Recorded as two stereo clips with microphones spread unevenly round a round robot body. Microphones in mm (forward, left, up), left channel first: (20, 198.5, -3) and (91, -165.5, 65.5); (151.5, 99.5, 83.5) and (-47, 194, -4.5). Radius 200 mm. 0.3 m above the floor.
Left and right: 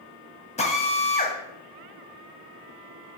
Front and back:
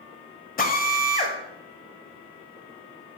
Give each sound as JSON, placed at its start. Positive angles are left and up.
{"t": 0.6, "sound": "a drill", "azimuth_deg": 35, "distance_m": 1.3}